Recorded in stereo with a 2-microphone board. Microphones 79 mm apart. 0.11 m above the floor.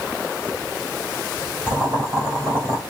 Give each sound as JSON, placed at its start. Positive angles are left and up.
{"t": 1.7, "sound": "boiling", "side_deg": -25, "distance_m": 2.5}